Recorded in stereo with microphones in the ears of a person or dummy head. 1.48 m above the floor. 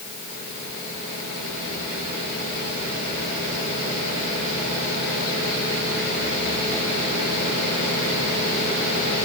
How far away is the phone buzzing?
No phone buzzing in this recording.